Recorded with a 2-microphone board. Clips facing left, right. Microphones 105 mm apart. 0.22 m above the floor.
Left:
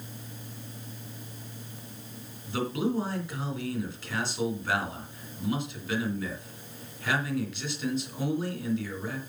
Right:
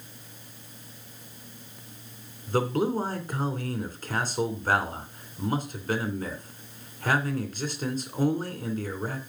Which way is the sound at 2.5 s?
40° right (ahead or behind).